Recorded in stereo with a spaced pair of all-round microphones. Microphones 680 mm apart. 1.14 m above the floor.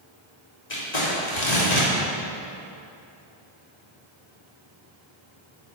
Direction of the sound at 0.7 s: 80° left.